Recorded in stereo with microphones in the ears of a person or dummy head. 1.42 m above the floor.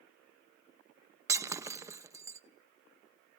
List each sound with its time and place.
1.3 s breaking glass: 20° right (ahead or behind), 0.9 m